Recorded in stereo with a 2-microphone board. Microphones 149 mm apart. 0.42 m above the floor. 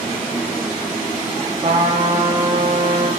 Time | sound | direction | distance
1.6 | a trumpet | 40° right (ahead or behind) | 1.0 m